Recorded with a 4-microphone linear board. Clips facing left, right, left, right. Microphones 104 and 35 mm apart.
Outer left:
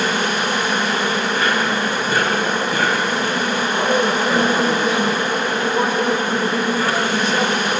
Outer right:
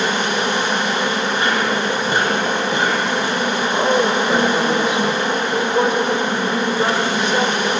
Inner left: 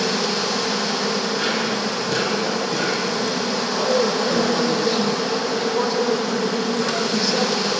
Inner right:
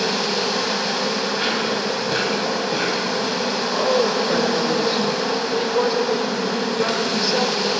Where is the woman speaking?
20° right (ahead or behind), 1.0 m.